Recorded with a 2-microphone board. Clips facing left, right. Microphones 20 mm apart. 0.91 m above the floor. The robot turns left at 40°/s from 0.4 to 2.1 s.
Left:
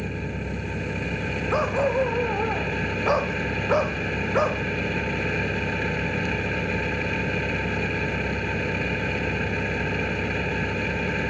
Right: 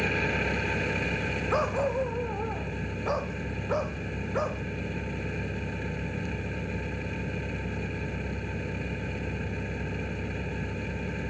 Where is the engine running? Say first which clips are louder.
Right 4 dB; 155° right; by 11.3 s 140° left.